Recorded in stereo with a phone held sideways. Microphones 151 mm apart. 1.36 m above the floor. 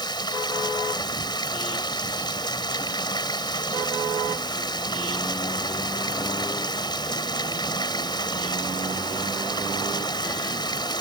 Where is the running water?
30° left (ahead or behind).